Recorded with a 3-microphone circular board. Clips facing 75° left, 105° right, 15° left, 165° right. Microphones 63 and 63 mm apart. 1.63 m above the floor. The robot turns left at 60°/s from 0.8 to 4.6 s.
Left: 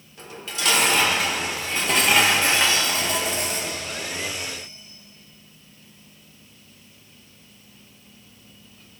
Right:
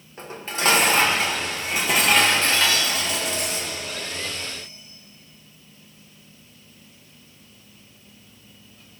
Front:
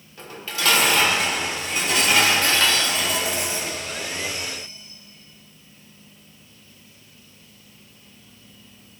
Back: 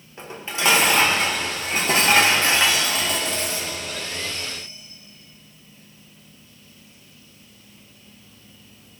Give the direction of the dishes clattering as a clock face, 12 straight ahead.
4 o'clock.